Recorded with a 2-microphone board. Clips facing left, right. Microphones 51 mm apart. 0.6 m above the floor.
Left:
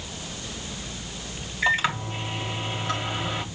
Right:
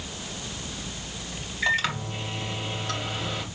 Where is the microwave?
10° left (ahead or behind), 2 m.